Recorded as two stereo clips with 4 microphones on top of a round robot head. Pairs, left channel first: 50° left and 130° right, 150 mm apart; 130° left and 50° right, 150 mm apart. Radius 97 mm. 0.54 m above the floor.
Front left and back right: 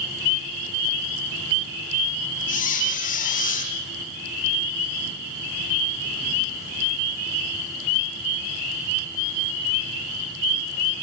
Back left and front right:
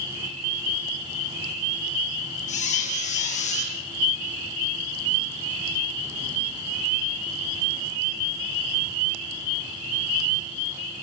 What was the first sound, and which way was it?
A squeak, 85° left.